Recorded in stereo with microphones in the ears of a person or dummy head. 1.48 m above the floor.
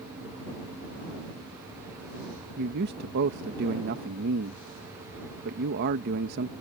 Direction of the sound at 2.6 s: 50° right (ahead or behind).